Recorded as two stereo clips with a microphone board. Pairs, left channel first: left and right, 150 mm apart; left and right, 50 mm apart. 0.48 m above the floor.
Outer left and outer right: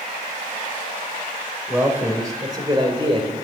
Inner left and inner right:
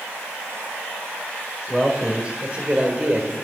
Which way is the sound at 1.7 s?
15° right (ahead or behind).